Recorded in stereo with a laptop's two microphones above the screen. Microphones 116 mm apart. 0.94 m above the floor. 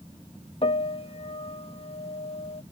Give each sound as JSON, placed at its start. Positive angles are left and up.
{"t": 0.6, "sound": "a piano", "side_deg": 55}